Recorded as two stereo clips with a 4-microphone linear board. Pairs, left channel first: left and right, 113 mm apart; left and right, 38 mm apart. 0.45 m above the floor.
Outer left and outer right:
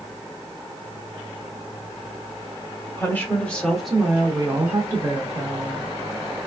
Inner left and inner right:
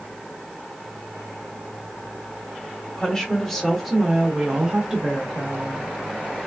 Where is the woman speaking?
20° left (ahead or behind), 1.0 m; by 5.9 s 35° right (ahead or behind), 1.3 m.